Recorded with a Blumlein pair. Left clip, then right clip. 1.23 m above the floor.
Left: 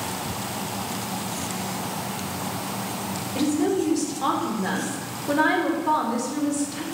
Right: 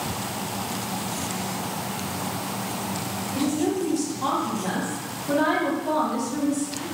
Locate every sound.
3.4 s a woman speaking: 70° left, 0.9 m